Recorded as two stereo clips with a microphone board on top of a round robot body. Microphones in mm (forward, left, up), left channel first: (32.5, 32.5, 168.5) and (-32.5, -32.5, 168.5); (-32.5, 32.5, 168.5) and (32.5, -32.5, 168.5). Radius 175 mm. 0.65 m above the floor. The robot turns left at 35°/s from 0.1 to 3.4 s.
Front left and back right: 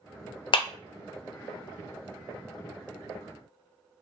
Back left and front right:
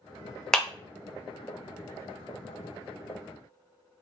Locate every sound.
0.5 s a clap: 55° left, 0.6 m; by 0.7 s 50° left, 0.6 m